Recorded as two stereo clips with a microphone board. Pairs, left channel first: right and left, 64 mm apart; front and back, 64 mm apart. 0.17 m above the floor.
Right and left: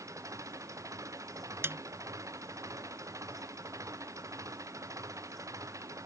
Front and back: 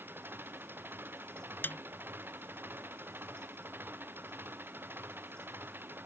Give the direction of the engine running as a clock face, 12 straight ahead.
8 o'clock.